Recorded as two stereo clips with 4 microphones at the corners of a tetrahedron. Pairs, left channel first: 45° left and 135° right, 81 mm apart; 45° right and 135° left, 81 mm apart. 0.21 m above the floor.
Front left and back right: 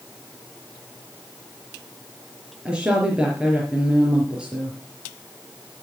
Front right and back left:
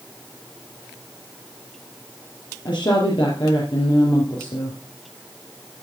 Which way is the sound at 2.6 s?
55° right.